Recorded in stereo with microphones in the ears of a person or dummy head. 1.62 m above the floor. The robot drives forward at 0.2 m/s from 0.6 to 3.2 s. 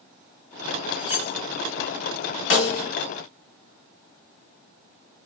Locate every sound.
1.0 s cutlery clinking: 50° left (ahead or behind), 1.6 m; by 1.3 s 45° left (ahead or behind), 1.6 m
2.5 s a snare drum: 65° left (ahead or behind), 1.1 m